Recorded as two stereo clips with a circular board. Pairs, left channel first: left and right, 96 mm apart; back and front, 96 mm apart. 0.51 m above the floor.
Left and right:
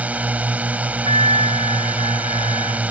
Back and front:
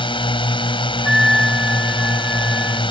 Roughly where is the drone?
Behind.